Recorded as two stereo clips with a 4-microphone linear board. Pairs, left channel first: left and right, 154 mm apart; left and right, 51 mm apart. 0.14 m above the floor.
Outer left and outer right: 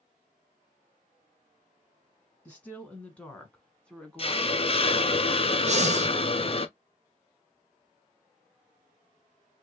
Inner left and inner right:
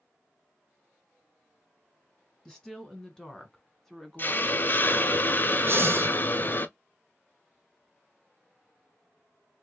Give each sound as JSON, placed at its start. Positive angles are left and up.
{"t": 2.5, "sound": "a woman speaking", "side_deg": 10, "distance_m": 1.2}
{"t": 4.2, "sound": "a hiss", "side_deg": 40, "distance_m": 0.5}
{"t": 5.7, "sound": "breathing", "side_deg": -50, "distance_m": 0.7}